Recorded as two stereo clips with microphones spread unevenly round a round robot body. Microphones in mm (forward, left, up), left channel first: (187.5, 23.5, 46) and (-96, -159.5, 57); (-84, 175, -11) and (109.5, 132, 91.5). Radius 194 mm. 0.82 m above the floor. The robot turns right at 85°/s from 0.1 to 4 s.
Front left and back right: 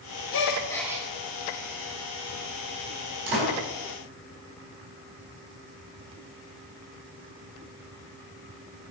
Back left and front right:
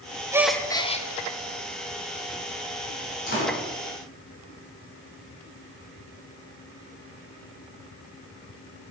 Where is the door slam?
145° right, 5 m; by 3.5 s 120° right, 5 m.